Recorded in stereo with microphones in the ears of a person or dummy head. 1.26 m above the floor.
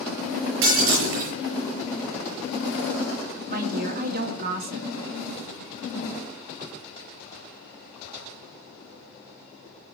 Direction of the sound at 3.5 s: 50° right (ahead or behind).